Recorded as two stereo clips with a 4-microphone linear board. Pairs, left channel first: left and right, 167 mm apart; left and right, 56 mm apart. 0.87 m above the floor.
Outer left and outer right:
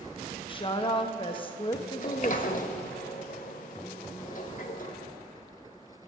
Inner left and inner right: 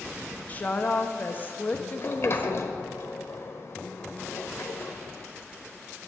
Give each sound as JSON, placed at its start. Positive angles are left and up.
{"t": 0.5, "sound": "a woman speaking", "side_deg": 30, "distance_m": 0.8}
{"t": 2.0, "sound": "a sliding door", "side_deg": 50, "distance_m": 0.8}